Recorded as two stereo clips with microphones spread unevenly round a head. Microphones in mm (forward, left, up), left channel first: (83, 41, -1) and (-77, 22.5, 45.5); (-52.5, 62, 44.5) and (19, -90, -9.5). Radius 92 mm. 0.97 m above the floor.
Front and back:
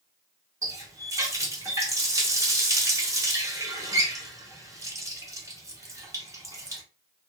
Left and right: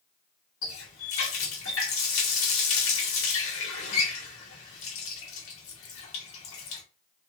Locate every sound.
0.6 s a running tap: 115° left, 0.9 m